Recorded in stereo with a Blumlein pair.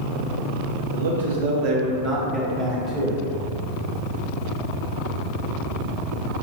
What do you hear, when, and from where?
0.9 s a man speaking: 70° right, 0.8 m; by 3.2 s 25° left, 0.9 m